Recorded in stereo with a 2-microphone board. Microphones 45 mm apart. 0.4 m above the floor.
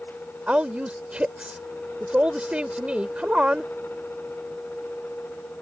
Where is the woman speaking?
25° right (ahead or behind).